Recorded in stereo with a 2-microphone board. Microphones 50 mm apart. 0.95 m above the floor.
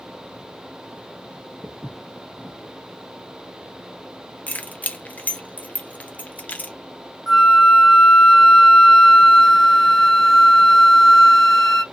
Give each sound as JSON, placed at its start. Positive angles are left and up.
{"t": 1.6, "sound": "footsteps", "side_deg": 10, "distance_m": 1.2}
{"t": 4.5, "sound": "keys jangling", "side_deg": 35, "distance_m": 0.5}
{"t": 7.3, "sound": "a flute", "side_deg": -5, "distance_m": 1.0}